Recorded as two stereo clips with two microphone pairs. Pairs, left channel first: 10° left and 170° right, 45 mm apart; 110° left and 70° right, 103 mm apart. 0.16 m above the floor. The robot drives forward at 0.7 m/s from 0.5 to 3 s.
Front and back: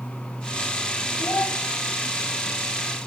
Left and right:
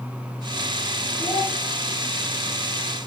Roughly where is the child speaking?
Ahead left.